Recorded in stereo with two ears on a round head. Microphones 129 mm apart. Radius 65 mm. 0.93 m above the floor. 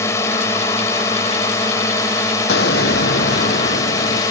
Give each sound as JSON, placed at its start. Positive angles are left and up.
{"t": 0.0, "sound": "a drone", "side_deg": 20}
{"t": 2.5, "sound": "an explosion", "side_deg": 80}